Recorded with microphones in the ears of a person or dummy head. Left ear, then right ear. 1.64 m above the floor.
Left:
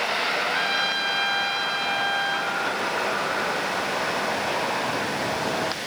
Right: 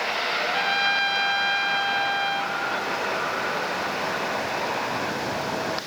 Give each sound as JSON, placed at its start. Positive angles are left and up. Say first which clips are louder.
{"t": 0.4, "sound": "a trumpet", "louder": "even", "side_deg": 0, "distance_m": 1.9}